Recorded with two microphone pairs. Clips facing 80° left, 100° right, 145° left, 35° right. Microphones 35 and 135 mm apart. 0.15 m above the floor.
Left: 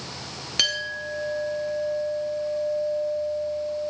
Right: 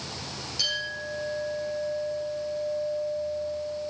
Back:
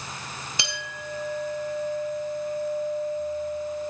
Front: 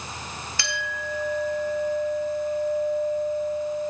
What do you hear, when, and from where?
0.6 s a clink: 80° left, 1.8 m